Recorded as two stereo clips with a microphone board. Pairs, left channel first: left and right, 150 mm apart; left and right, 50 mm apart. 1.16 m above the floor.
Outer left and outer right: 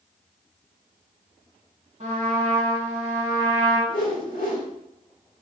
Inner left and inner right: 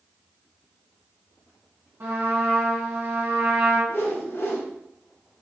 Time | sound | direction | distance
2.0 | a trumpet | 50° right (ahead or behind) | 2.0 m
3.9 | a whoosh | 65° left (ahead or behind) | 1.4 m